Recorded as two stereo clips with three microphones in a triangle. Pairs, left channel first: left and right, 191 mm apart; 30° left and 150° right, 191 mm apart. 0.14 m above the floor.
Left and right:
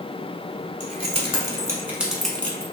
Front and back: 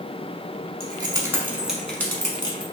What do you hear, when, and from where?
0.8 s keys jangling: 105° right, 0.9 m; by 2.6 s 30° left, 0.8 m